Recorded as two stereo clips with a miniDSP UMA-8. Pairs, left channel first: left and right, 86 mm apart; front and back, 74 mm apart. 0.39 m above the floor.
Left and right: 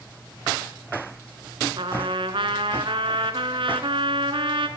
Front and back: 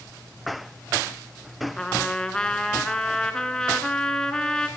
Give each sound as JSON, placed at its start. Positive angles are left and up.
{"t": 1.8, "sound": "a trumpet", "azimuth_deg": -80, "distance_m": 1.2}